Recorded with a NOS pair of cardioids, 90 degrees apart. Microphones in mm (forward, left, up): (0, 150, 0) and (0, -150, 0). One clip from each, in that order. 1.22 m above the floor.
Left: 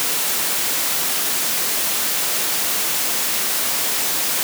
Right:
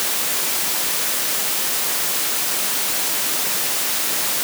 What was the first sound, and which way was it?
Only background noise.